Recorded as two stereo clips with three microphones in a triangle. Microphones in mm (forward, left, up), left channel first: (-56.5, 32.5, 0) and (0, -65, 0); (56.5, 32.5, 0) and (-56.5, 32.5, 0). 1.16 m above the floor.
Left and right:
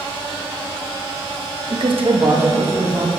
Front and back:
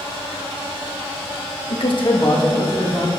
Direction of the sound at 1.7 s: 15° right.